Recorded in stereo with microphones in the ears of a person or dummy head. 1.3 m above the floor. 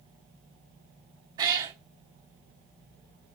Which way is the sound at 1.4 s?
25° right (ahead or behind).